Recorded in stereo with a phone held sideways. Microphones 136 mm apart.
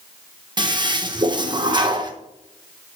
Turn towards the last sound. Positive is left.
turn(degrees=-35)  # may be behind; listen again after turning